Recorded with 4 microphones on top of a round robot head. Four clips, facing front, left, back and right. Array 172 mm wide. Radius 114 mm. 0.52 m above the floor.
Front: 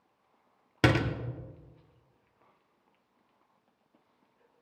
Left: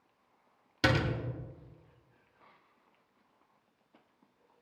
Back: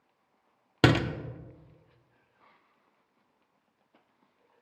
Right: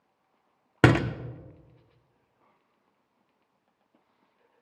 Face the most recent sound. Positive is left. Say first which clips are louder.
# right 8 dB, back 2 dB
turn(degrees=-110)